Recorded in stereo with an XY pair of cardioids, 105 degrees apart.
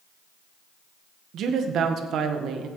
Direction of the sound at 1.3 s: 70° right.